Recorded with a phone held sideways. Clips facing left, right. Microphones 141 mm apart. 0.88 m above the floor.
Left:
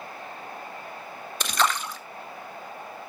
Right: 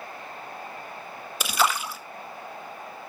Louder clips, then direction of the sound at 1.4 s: Right 1 dB; 5° right (ahead or behind).